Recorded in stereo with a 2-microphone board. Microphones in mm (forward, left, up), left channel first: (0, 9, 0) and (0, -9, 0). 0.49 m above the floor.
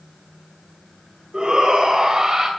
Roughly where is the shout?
Right.